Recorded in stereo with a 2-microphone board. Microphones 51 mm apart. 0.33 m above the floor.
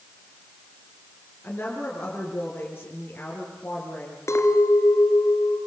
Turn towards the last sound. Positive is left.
turn(degrees=65)  # may be behind; listen again after turning